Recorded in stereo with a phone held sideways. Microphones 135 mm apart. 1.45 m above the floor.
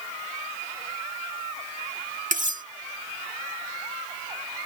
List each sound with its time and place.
2.3 s cutlery clinking: 70° right (ahead or behind)